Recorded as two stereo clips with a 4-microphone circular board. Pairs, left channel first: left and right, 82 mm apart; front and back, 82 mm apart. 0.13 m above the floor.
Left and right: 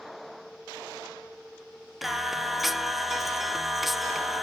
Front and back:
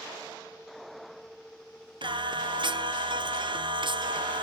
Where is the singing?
Straight behind, 0.8 m.